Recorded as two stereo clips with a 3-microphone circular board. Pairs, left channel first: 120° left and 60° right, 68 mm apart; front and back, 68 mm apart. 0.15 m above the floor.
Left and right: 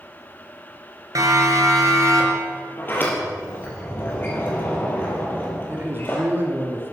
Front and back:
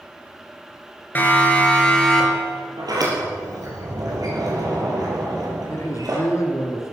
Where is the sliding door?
175° left, 4.5 m.